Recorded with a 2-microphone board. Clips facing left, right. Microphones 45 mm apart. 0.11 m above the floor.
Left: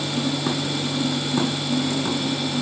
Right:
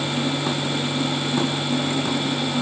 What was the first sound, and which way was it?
Only background noise.